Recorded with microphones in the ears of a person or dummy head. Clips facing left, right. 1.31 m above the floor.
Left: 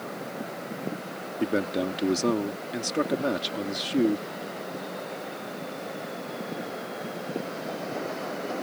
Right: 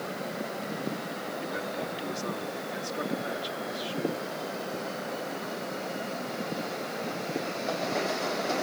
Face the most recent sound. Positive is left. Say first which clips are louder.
# left 12 dB
turn(degrees=65)  # may be behind; listen again after turning